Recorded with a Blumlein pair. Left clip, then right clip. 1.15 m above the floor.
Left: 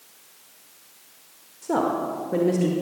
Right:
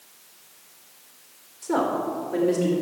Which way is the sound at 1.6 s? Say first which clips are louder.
Even; 15° left.